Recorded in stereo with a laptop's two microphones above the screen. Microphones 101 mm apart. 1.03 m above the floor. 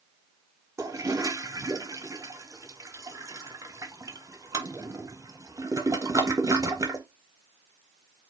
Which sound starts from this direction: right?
A toilet flushing, at 0.8 s.